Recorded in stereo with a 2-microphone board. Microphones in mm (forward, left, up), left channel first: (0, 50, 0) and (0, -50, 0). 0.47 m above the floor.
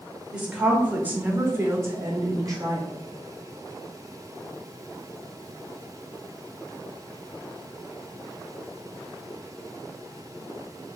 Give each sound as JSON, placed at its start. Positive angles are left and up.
{"t": 0.3, "sound": "a woman speaking", "side_deg": -10, "distance_m": 1.4}